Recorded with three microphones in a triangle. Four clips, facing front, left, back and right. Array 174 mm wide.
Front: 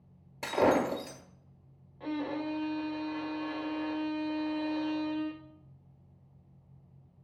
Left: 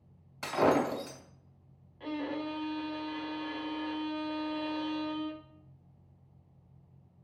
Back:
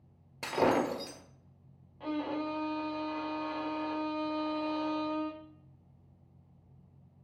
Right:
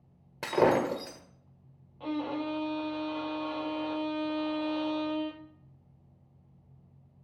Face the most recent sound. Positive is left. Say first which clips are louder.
# right 3 dB, even
turn(degrees=-105)